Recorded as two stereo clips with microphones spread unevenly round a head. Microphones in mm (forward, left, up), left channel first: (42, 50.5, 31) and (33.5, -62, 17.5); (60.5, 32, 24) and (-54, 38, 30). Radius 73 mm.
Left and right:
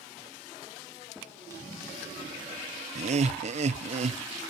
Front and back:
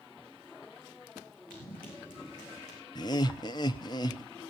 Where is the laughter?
65° right, 0.5 m.